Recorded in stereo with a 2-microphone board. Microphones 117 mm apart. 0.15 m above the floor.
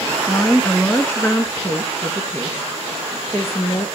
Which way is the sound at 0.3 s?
15° left (ahead or behind).